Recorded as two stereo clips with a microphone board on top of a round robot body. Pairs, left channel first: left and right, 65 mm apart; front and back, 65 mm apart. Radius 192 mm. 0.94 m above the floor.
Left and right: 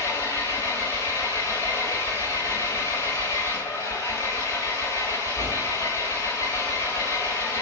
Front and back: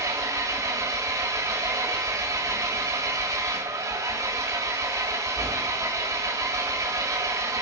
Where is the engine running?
145° left, 1.7 m.